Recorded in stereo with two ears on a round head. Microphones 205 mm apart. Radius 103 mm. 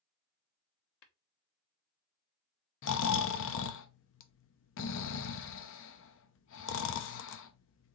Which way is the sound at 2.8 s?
55° left (ahead or behind).